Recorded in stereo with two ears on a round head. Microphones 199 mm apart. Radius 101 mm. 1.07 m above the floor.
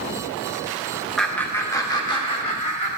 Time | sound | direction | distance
1.2 | laughter | centre (ahead or behind) | 1.0 m